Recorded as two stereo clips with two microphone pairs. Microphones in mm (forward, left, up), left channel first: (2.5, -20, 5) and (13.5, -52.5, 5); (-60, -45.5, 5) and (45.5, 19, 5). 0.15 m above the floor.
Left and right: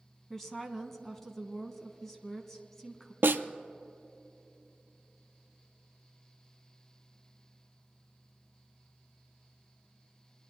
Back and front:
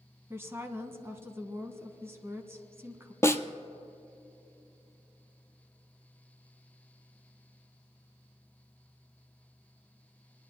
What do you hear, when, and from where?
0.3 s a woman speaking: 40° left, 1.0 m
3.2 s a snare drum: 80° right, 0.7 m